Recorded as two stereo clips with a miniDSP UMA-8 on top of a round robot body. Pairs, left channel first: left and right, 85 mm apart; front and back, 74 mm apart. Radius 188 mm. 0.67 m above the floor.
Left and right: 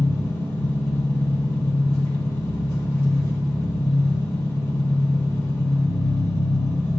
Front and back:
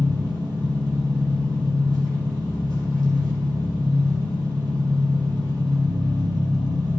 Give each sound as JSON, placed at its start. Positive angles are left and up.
{"t": 0.0, "sound": "an engine running", "azimuth_deg": 150, "distance_m": 2.0}